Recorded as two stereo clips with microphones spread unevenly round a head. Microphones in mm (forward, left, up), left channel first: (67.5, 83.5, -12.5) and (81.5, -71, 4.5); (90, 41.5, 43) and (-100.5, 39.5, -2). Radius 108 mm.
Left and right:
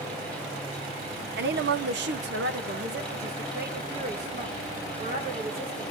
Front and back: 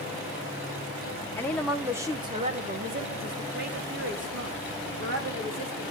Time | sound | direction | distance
1.4 | a woman speaking | 75° right | 1.2 m